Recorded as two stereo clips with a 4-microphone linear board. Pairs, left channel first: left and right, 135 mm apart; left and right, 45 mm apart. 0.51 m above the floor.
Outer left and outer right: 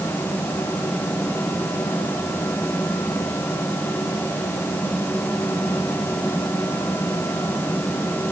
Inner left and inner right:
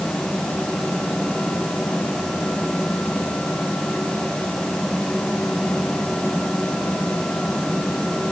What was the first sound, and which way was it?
Only background noise.